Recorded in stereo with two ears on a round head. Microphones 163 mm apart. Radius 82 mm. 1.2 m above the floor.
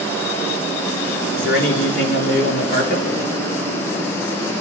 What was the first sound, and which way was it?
A man speaking, 70° left (ahead or behind).